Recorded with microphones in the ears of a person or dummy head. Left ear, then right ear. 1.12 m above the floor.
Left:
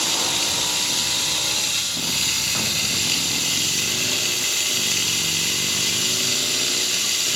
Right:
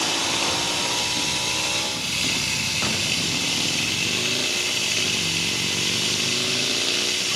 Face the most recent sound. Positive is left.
turn(degrees=20)  # may be behind; listen again after turning